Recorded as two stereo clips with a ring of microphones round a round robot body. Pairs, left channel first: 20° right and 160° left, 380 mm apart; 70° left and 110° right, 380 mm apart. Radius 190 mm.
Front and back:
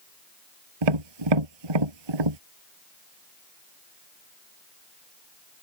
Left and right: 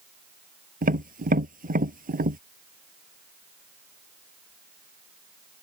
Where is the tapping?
Straight behind.